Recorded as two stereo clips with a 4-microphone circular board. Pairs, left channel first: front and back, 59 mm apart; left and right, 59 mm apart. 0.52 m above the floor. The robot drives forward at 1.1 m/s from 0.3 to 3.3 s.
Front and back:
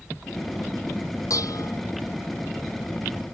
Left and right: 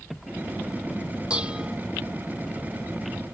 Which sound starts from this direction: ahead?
Dishes clattering, at 1.3 s.